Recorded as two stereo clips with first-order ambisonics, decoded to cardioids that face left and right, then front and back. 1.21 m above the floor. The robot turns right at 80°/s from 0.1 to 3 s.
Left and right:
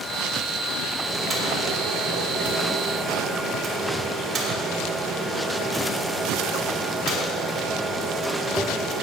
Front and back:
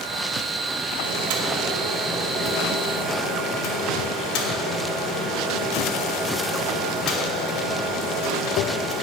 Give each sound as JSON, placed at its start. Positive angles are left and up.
{"t": 1.0, "sound": "boiling", "azimuth_deg": 180, "distance_m": 2.5}